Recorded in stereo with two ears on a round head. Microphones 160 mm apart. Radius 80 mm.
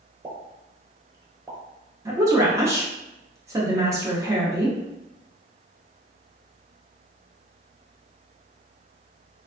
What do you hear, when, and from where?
0.2 s a pop: 20° right (ahead or behind), 0.7 m
2.0 s a woman speaking: 20° right (ahead or behind), 0.7 m